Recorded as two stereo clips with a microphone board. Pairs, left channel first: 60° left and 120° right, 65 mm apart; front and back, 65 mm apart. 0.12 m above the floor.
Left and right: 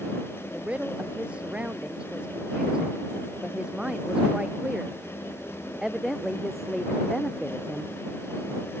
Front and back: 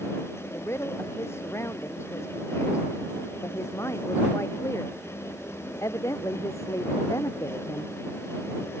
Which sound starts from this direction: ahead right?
A woman speaking, at 0.5 s.